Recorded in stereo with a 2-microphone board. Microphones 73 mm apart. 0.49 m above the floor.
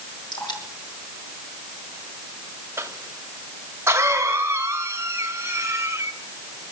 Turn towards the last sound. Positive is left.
turn(degrees=-35)  # may be behind; listen again after turning